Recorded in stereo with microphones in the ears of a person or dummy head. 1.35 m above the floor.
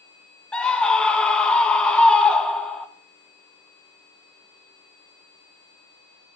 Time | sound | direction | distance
0.5 | a scream | 5° left (ahead or behind) | 0.7 m